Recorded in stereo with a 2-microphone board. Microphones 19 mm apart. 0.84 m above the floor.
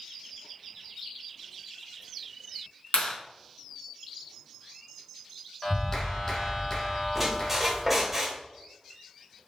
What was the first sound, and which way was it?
A clap, 65° left (ahead or behind).